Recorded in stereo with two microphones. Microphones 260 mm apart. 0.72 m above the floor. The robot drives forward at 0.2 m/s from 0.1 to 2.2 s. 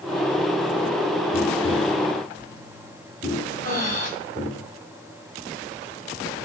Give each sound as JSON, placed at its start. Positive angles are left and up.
{"t": 1.3, "sound": "tapping", "side_deg": 25, "distance_m": 1.3}
{"t": 3.6, "sound": "breathing", "side_deg": -40, "distance_m": 1.3}